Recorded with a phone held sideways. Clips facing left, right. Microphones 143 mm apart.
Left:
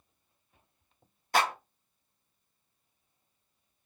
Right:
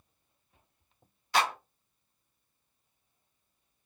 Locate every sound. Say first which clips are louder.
1.3 s a clap: left 1 dB; 45° left (ahead or behind), 0.9 m